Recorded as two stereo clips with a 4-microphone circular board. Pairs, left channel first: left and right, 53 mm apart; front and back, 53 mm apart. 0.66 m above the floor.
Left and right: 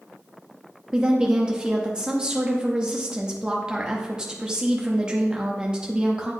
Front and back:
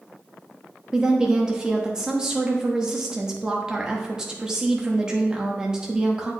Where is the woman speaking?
130° right, 0.9 m.